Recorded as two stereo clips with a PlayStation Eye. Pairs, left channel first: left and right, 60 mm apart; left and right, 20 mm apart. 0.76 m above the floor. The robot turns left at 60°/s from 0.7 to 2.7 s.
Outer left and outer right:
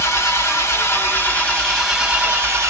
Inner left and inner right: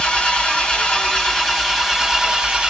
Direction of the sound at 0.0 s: 65° left.